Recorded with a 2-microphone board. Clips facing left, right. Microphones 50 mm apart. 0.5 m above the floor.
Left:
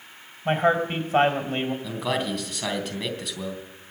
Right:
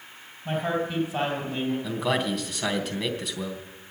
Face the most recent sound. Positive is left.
turn(degrees=0)  # may be behind; listen again after turning